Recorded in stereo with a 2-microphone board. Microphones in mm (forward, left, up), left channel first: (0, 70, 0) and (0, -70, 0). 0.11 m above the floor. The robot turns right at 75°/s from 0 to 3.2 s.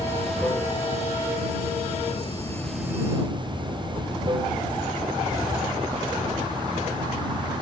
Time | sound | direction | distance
0.0 | running water | 25° right | ?